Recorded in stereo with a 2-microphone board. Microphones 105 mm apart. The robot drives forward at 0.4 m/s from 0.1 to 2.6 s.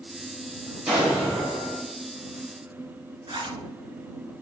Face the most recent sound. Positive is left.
turn(degrees=-45)  # may be behind; listen again after turning